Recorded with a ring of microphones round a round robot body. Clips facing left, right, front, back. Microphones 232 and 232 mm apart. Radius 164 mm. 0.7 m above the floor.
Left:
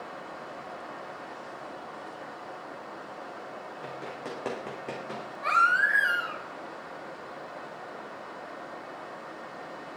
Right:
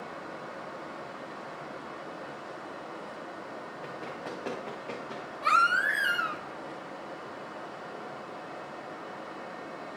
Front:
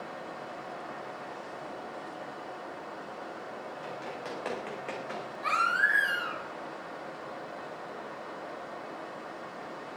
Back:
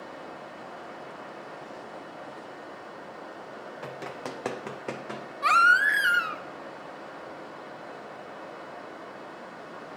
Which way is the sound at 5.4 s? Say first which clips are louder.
Right 1 dB, back 4 dB; 155° right.